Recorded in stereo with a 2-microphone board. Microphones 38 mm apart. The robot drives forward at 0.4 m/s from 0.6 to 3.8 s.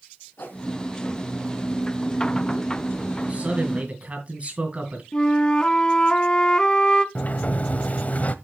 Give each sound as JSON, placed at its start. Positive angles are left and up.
{"t": 0.4, "sound": "a whoosh", "side_deg": 55, "distance_m": 2.5}
{"t": 3.3, "sound": "a man speaking", "side_deg": -35, "distance_m": 5.0}
{"t": 5.1, "sound": "a flute", "side_deg": 20, "distance_m": 0.7}
{"t": 7.2, "sound": "a sliding door", "side_deg": 40, "distance_m": 0.8}